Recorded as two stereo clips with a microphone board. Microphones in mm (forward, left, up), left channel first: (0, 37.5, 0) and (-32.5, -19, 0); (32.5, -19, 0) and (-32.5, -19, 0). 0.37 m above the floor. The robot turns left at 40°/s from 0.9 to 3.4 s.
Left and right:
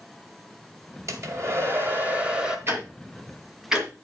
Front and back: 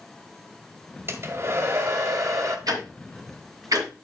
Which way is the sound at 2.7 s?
170° right.